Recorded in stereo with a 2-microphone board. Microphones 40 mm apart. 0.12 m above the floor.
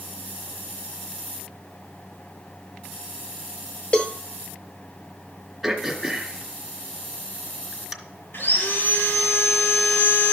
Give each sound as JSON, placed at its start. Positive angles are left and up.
{"t": 3.9, "sound": "a cowbell", "side_deg": 40, "distance_m": 0.6}
{"t": 5.6, "sound": "throat clearing", "side_deg": -5, "distance_m": 1.3}
{"t": 8.3, "sound": "sawing", "side_deg": 60, "distance_m": 2.5}